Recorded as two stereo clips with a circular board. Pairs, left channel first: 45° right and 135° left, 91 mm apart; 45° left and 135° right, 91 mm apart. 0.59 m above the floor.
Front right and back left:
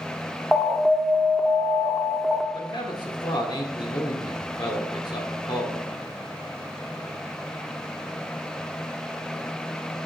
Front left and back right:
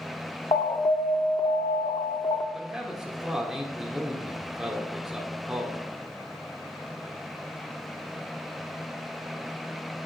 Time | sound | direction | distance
0.5 | an alarm | 45° left | 0.6 m
2.5 | a man speaking | 50° right | 1.5 m